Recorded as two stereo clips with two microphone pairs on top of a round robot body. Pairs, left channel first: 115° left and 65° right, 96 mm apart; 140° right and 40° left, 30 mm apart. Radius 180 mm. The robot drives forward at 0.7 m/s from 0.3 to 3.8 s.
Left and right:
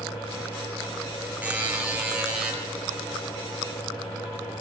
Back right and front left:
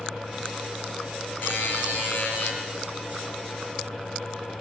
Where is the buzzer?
140° right, 5.5 m; by 2.5 s 145° right, 6 m.